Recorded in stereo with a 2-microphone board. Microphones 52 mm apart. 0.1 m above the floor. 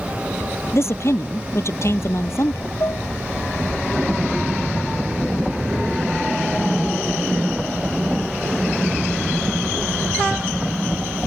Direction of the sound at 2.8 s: 60° left (ahead or behind).